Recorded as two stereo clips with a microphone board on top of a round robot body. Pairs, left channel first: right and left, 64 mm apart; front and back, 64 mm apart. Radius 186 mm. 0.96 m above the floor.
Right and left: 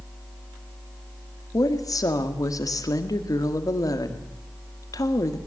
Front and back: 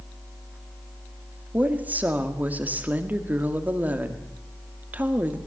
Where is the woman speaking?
115° right, 2.0 m.